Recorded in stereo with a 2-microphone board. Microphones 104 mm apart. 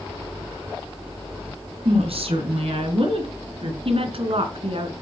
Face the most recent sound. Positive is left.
turn(degrees=-65)  # may be behind; listen again after turning